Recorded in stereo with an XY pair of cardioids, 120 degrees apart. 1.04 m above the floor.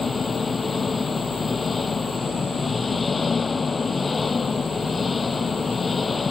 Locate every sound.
0.0 s an engine running: 25° left